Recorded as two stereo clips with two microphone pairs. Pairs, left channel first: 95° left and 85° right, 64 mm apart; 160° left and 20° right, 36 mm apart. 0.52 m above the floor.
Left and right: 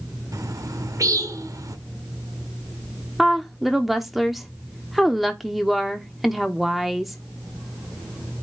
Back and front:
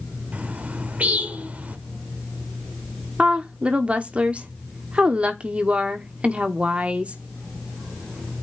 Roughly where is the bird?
Ahead right.